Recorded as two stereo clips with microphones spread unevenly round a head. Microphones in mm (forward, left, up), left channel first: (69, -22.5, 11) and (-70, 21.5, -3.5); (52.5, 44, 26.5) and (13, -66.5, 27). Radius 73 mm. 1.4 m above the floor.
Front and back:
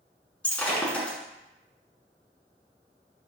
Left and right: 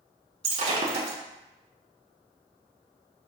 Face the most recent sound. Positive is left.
turn(degrees=-95)